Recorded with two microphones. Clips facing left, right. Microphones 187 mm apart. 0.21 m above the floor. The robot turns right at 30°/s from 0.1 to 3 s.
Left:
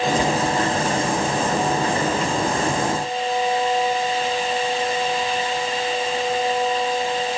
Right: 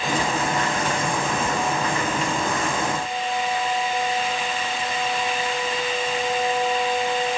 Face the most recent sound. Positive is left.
No sound to turn to.